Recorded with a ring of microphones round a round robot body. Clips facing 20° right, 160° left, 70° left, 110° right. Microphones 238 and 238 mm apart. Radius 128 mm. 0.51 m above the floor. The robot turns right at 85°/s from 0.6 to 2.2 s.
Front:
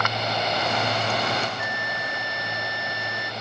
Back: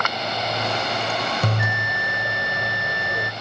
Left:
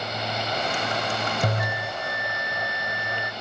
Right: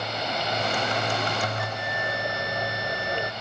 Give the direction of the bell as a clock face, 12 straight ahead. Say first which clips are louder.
Back 5 dB, left 3 dB; 8 o'clock.